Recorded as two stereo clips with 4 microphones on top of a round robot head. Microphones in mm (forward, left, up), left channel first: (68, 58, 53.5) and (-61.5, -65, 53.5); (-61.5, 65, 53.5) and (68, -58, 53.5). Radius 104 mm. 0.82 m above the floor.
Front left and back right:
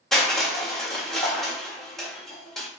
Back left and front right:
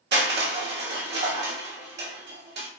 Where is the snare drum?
No snare drum in this recording.